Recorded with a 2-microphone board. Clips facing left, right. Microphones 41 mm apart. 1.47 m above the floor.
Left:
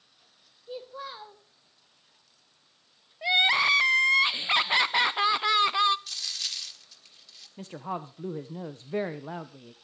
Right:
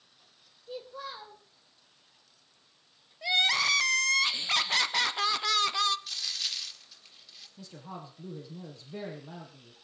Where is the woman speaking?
50° left (ahead or behind), 0.9 m.